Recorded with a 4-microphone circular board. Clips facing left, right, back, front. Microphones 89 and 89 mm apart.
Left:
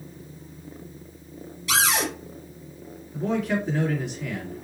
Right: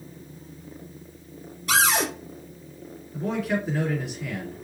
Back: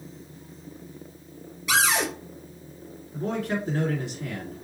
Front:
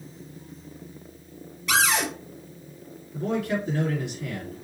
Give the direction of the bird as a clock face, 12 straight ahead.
I don't hear a bird.